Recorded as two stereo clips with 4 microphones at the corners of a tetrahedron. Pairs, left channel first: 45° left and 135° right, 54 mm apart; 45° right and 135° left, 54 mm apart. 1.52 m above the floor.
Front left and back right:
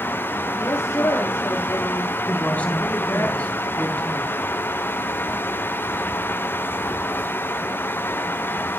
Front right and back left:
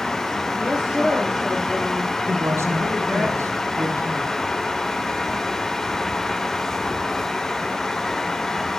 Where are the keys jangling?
No keys jangling in this recording.